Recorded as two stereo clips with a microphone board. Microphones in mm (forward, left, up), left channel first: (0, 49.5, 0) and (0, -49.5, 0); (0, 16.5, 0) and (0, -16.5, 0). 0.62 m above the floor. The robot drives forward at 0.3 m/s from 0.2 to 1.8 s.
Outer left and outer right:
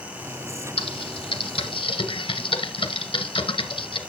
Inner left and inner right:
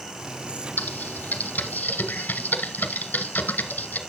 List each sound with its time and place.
0.8 s typing on a keyboard: 70° left (ahead or behind), 1.0 m; by 4.0 s 65° left (ahead or behind), 1.0 m